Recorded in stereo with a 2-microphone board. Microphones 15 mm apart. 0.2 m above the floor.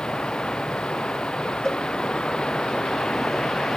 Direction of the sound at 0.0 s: 85° left.